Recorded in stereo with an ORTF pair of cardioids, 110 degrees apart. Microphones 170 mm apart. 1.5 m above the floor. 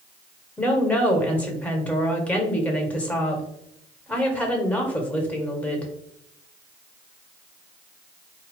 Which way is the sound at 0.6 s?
10° left.